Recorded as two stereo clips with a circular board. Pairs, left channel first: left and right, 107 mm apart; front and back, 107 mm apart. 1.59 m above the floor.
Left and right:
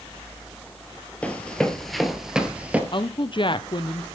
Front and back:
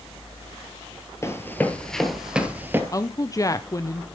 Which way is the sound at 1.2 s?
30° left.